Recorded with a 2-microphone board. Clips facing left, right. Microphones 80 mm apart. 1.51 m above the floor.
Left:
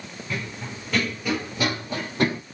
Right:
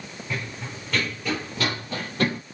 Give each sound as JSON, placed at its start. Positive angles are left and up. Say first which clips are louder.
{"t": 0.3, "sound": "running footsteps", "louder": "left 1 dB", "side_deg": 0, "distance_m": 1.6}